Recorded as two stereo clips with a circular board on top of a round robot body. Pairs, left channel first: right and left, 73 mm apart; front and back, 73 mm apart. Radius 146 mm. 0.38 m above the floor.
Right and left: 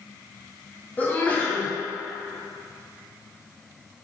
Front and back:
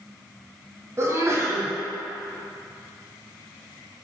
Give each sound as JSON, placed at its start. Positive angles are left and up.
{"t": 1.0, "sound": "a sneeze", "azimuth_deg": -150, "distance_m": 1.0}